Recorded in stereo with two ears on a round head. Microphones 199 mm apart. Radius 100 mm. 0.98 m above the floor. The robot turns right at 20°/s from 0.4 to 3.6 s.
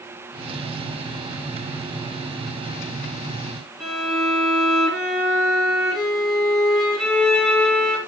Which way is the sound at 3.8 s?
Centre (ahead or behind).